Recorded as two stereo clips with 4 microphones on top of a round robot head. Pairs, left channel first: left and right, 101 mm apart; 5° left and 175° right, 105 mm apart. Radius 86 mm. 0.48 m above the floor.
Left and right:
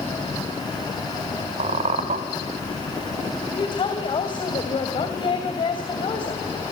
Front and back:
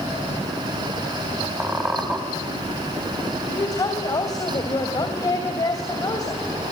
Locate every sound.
1.6 s a squeak: 90° right, 2.0 m
3.5 s a woman speaking: 60° left, 2.5 m